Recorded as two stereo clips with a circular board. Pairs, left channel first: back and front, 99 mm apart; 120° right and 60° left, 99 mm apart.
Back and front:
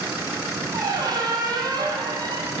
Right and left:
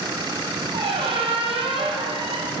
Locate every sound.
0.7 s a squeak: 45° left, 1.3 m